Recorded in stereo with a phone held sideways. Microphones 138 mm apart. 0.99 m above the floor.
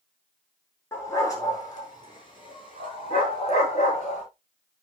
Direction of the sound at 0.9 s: 20° left (ahead or behind).